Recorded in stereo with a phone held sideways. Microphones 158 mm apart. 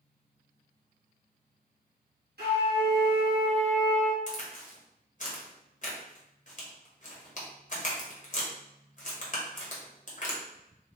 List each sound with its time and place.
2.4 s a flute: 80° right, 1.5 m
4.3 s a crack: 50° left (ahead or behind), 1.1 m